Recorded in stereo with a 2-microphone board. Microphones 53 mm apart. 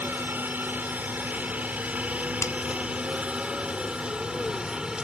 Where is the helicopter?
35° right (ahead or behind); by 5.0 s 15° right (ahead or behind).